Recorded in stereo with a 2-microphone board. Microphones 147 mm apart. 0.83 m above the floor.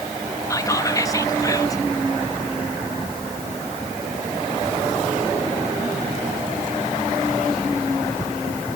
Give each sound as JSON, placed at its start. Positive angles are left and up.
{"t": 0.5, "sound": "whispering", "side_deg": 25, "distance_m": 0.9}